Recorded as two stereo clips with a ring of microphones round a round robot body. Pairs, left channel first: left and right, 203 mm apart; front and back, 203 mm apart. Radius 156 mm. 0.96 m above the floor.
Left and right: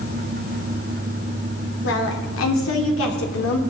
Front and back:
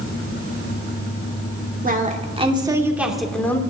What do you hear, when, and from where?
1.8 s a woman speaking: 135° left, 2.5 m; by 3.6 s 80° left, 2.5 m